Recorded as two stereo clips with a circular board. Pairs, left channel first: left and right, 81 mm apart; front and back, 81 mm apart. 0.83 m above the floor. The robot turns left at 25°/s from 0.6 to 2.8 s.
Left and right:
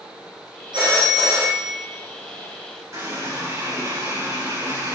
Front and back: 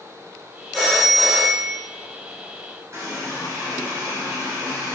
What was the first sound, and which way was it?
A phone ringing, 90° right.